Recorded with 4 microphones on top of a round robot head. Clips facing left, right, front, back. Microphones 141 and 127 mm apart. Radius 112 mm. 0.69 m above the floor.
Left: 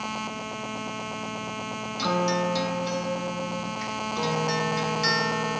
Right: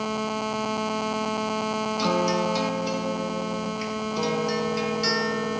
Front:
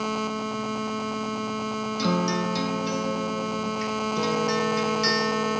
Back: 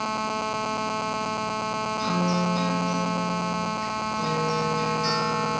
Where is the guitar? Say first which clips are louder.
Even, front 1 dB; 10° right, 1.7 m.